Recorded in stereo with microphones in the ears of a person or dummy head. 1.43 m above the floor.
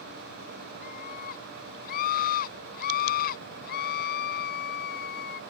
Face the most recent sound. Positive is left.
turn(degrees=50)  # may be behind; listen again after turning